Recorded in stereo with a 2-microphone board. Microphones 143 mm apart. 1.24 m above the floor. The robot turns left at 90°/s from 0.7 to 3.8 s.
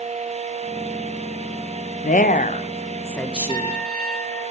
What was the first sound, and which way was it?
A woman speaking, 110° left.